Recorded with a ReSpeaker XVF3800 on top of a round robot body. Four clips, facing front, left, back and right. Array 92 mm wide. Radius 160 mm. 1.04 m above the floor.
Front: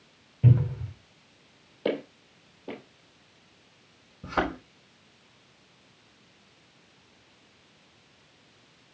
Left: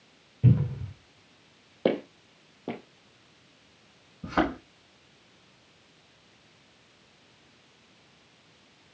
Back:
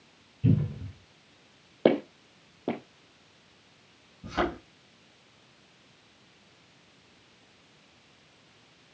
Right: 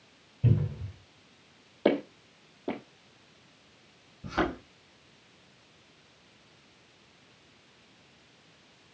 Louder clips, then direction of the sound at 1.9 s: Right 1 dB, back 6 dB; 165° left.